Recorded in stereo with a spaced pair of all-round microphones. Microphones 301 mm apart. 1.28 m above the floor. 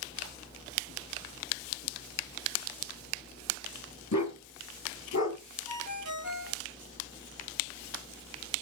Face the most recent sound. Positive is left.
turn(degrees=70)  # may be behind; listen again after turning